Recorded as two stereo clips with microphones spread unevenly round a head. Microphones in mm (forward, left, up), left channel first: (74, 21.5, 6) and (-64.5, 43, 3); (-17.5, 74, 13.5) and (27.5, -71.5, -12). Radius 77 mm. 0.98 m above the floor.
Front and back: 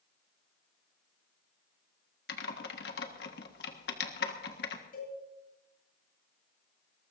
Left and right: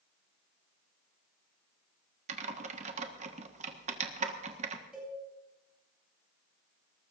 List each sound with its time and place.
2.3 s typing on a keyboard: 30° right, 1.6 m
4.9 s a cowbell: 10° left, 9.5 m